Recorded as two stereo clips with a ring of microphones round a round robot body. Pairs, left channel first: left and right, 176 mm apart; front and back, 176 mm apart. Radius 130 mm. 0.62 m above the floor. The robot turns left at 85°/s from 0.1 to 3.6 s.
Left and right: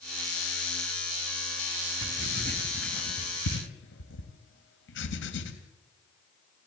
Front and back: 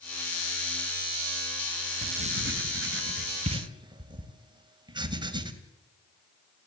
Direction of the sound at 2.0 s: 110° right.